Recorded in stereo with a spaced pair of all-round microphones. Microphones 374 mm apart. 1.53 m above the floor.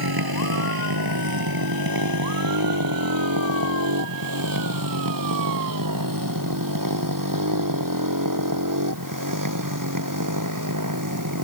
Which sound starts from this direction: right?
A motorcycle, at 0.0 s.